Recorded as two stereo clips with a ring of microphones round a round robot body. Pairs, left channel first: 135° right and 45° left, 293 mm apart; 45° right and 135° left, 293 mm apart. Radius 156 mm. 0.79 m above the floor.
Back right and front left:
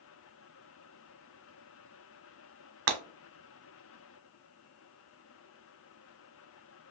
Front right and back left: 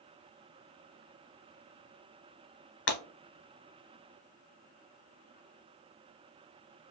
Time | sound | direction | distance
2.9 | breaking glass | straight ahead | 0.8 m